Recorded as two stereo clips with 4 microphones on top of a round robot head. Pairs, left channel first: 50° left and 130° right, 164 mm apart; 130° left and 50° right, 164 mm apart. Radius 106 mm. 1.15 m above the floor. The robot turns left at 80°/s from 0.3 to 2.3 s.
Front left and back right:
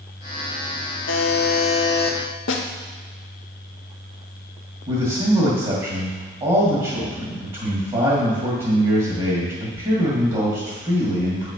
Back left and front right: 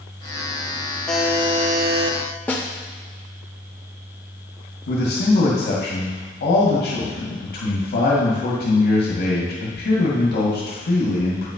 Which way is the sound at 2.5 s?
50° left.